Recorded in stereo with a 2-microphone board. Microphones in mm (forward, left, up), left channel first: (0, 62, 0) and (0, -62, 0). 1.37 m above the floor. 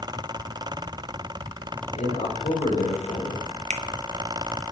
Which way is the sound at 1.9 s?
65° left (ahead or behind).